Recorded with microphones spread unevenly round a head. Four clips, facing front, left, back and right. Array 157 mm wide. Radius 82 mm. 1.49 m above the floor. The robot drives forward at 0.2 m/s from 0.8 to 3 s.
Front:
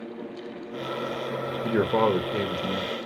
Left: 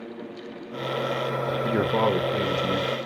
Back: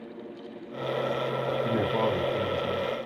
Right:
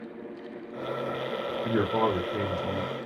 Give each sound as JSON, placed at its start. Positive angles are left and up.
{"t": 1.6, "sound": "a man speaking", "azimuth_deg": 20, "distance_m": 0.7}